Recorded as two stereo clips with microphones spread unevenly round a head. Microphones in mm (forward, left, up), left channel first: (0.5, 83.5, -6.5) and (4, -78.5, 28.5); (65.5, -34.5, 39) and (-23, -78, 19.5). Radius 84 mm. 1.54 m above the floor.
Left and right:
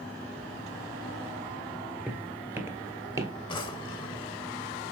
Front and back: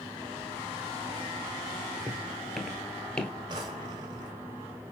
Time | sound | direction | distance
2.1 | footsteps | 60° right | 1.6 m
3.5 | a drawer | 155° left | 1.4 m